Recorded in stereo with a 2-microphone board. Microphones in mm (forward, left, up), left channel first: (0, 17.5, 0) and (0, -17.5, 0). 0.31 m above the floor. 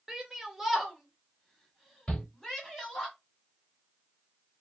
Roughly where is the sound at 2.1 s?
Left.